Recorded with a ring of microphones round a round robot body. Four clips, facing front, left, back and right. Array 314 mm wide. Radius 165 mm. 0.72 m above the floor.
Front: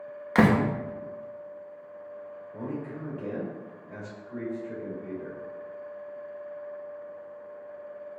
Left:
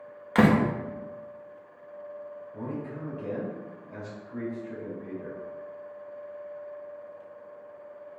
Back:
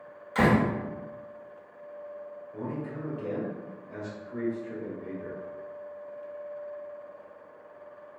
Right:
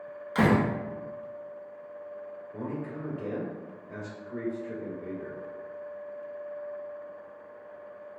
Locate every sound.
0.3 s a door slam: 35° left, 0.6 m
2.5 s a man speaking: 70° right, 1.9 m